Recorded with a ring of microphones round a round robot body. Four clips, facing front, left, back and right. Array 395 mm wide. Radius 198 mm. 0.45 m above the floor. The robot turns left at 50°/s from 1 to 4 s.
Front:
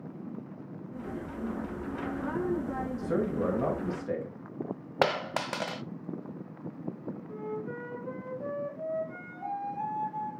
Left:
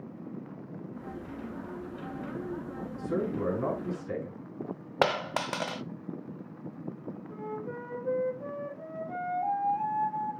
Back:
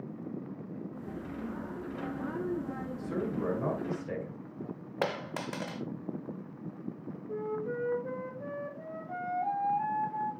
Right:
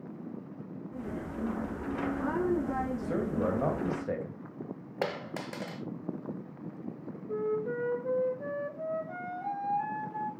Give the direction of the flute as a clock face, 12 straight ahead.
4 o'clock.